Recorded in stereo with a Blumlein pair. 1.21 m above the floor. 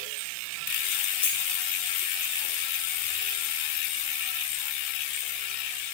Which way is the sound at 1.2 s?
55° left.